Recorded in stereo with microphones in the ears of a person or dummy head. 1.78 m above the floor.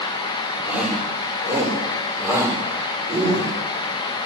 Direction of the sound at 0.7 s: 10° right (ahead or behind).